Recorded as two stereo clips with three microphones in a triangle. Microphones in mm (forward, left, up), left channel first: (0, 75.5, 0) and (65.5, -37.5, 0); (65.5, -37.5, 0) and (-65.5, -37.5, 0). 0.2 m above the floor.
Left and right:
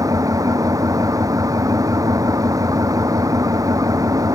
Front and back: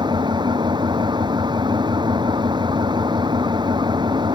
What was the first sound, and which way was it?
An engine running, 125° right.